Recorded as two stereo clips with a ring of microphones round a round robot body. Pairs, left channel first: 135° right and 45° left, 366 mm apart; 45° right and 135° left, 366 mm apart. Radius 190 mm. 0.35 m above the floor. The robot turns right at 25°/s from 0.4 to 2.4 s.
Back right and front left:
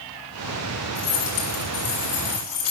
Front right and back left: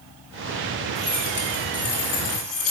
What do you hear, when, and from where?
0.9 s keys jangling: 135° right, 3 m; by 2.7 s 100° right, 3 m